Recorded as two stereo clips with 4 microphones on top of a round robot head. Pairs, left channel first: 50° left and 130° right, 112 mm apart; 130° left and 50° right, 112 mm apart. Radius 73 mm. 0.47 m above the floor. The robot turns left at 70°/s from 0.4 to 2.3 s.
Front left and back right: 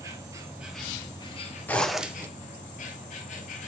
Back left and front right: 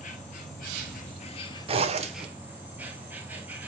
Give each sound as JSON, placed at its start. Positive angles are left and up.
{"t": 0.0, "sound": "an insect", "azimuth_deg": 160, "distance_m": 1.2}
{"t": 1.7, "sound": "a zipper", "azimuth_deg": -25, "distance_m": 1.0}